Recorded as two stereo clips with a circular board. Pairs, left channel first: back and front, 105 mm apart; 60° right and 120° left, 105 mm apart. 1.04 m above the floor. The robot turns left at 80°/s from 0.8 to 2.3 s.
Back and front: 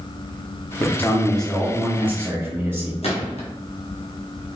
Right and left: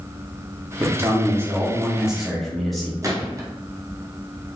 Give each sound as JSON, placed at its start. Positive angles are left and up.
{"t": 0.8, "sound": "a man speaking", "azimuth_deg": 150, "distance_m": 0.7}
{"t": 3.0, "sound": "a gunshot", "azimuth_deg": 180, "distance_m": 0.7}